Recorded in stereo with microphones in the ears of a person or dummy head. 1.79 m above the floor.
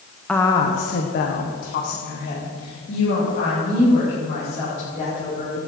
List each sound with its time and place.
0.3 s a woman speaking: 10° left (ahead or behind), 0.9 m; by 5.6 s 45° left (ahead or behind), 6 m